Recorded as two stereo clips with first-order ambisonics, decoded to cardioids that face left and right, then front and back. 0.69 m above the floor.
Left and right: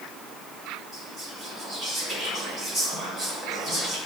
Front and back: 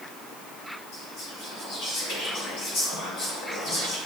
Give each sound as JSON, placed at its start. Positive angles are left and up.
{"t": 0.9, "sound": "whispering", "azimuth_deg": -10, "distance_m": 1.9}